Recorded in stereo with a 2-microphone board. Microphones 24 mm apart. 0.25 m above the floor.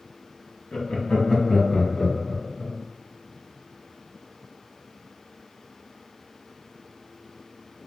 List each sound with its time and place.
0.7 s laughter: 45° left (ahead or behind), 1.4 m; by 2.8 s 25° left (ahead or behind), 2 m